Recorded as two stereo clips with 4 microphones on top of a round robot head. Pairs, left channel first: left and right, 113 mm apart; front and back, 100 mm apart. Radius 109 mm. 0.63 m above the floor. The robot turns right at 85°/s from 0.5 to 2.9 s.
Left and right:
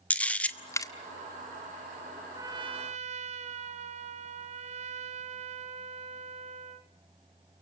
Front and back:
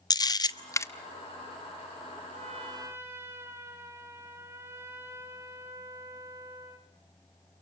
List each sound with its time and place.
0.1 s a camera shutter: 20° left, 1.1 m; by 0.9 s 50° left, 1.1 m
2.3 s a trumpet: 155° right, 1.3 m; by 6.9 s 110° right, 1.3 m